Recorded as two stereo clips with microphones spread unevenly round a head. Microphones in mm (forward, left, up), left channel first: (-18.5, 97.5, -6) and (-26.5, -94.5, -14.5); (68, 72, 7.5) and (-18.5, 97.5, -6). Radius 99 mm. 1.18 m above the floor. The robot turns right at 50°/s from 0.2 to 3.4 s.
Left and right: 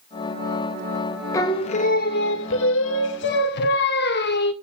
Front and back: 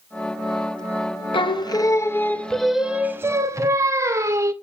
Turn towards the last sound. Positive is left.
turn(degrees=115)